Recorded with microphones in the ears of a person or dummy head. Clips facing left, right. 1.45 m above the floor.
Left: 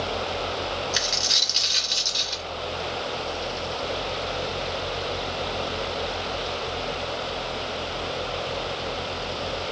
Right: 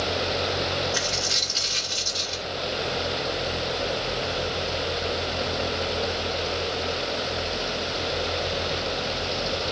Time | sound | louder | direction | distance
0.9 | a dropped coin | right 2 dB | 50° left (ahead or behind) | 1.7 m